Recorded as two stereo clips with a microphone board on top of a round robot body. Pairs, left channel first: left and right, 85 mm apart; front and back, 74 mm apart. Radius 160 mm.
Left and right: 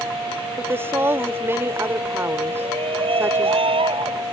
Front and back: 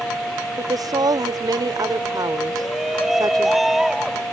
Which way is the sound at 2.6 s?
90° right.